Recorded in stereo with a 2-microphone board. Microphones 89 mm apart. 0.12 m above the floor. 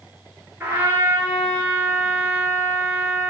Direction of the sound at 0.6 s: 25° right (ahead or behind).